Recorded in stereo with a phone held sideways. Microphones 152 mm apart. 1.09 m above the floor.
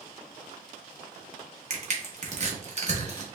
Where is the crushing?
45° right (ahead or behind), 1.1 m.